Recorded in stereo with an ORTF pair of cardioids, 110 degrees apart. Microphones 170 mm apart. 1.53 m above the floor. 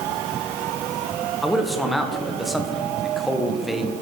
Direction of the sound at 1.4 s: Straight ahead.